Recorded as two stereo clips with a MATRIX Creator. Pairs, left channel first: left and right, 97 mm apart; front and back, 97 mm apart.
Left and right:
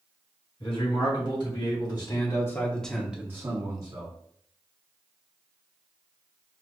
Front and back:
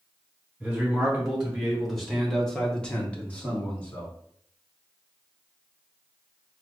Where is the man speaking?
95° left, 1.8 m; by 4.1 s 70° right, 1.1 m.